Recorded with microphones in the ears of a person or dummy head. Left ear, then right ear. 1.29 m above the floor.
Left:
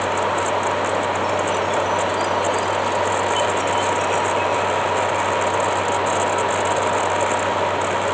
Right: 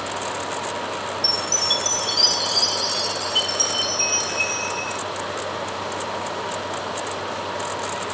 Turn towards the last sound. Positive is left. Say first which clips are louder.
# left 1 dB
turn(degrees=-80)